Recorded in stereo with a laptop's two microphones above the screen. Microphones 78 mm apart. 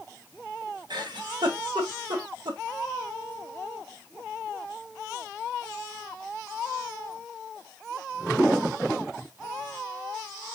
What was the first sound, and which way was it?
A giggle, 70° right (ahead or behind).